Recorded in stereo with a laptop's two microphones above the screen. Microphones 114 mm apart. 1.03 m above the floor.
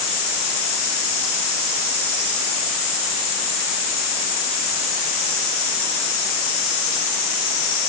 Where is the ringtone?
No ringtone in this recording.